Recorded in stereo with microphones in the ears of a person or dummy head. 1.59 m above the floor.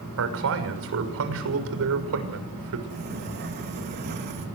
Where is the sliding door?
50° right (ahead or behind), 3 m.